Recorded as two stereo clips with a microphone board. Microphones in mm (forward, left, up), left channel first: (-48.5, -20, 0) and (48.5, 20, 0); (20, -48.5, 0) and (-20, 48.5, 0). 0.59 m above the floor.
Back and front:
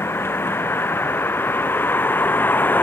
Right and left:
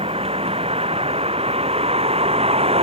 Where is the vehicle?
135° left; by 2.8 s 130° left.